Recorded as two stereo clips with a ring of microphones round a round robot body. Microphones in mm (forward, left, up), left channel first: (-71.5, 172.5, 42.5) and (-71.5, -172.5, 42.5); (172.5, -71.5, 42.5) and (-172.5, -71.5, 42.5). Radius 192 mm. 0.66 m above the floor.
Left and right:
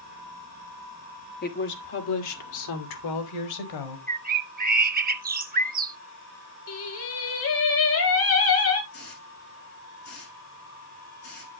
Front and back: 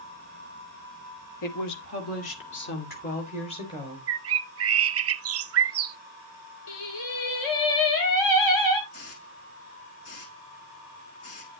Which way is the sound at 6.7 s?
35° left.